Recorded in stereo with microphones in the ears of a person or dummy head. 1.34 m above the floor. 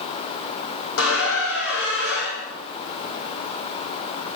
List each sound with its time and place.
1.0 s a squeak: 65° left (ahead or behind), 5 m